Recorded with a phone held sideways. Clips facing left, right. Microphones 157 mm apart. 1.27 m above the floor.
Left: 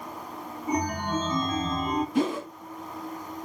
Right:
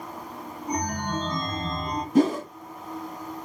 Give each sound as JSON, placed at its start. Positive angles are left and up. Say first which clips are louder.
{"t": 0.7, "sound": "a chime", "louder": "left 2 dB", "side_deg": 5, "distance_m": 0.6}
{"t": 2.1, "sound": "a whoosh", "louder": "right 9 dB", "side_deg": -40, "distance_m": 1.1}